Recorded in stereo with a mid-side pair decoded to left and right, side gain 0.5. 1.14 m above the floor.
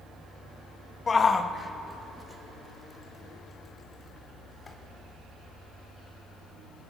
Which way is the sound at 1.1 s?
35° left.